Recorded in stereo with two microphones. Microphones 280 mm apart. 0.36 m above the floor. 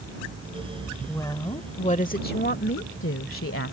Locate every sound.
1.1 s a woman speaking: 10° left (ahead or behind); by 3.7 s 50° left (ahead or behind)